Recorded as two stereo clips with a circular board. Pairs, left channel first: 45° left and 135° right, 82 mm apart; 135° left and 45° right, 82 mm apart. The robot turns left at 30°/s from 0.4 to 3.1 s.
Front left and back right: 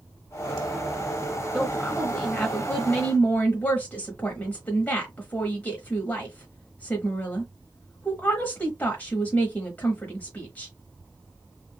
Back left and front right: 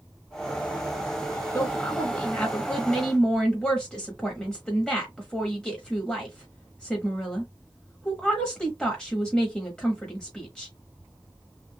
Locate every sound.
1.5 s a woman speaking: 120° left, 0.9 m; by 10.7 s 75° left, 0.9 m